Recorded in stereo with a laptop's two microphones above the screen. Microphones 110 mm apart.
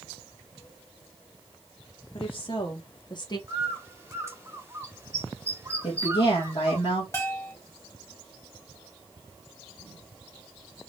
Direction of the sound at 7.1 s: 30° left (ahead or behind).